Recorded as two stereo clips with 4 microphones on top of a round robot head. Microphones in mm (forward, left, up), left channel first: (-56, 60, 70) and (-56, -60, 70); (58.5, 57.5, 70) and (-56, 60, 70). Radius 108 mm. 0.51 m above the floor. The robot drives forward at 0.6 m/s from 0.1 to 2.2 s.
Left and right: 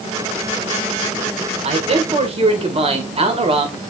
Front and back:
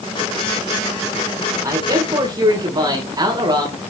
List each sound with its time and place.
1.6 s a man speaking: 115° right, 2.0 m; by 3.8 s 125° right, 2 m